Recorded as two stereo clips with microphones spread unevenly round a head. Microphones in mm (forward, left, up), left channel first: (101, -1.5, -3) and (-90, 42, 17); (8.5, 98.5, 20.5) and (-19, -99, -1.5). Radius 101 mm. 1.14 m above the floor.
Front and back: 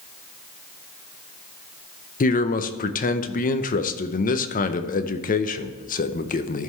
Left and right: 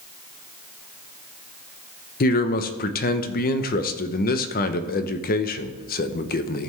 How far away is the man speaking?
About 0.8 m.